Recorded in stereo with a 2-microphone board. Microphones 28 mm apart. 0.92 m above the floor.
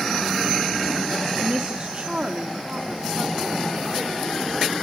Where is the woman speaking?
35° right (ahead or behind), 1.6 m; by 4.7 s 65° right (ahead or behind), 3 m.